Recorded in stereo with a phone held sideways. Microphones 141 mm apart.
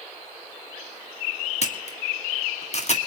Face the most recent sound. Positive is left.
turn(degrees=50)  # may be behind; listen again after turning